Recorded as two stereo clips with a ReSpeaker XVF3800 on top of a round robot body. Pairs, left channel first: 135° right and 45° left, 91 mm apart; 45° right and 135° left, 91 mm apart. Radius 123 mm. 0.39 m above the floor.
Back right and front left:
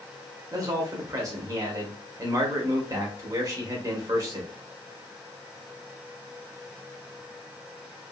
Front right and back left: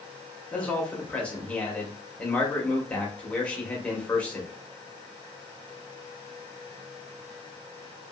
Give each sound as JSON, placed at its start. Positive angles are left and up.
{"t": 0.5, "sound": "a man speaking", "azimuth_deg": 25, "distance_m": 1.2}